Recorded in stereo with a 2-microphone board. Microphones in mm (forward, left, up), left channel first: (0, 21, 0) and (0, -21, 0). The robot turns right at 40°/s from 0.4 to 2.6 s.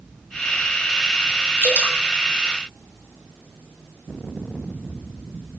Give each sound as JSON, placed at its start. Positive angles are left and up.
{"t": 1.6, "sound": "dripping", "side_deg": -55, "distance_m": 1.2}